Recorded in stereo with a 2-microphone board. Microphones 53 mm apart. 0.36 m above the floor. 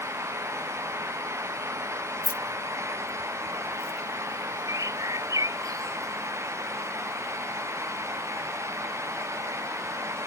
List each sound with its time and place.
2.2 s keys jangling: 35° left (ahead or behind); by 4.0 s 70° left (ahead or behind)
4.7 s a bird: 90° right